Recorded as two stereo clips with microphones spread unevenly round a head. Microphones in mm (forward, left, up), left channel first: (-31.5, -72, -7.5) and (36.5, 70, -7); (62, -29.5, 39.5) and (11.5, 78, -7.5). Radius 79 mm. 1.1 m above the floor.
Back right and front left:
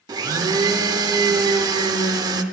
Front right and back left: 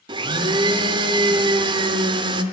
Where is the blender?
65° left, 0.7 m.